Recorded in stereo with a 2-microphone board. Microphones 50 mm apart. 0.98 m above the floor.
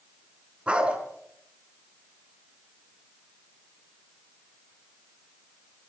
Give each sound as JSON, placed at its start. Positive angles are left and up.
{"t": 0.7, "sound": "a dog barking", "side_deg": -20, "distance_m": 5.0}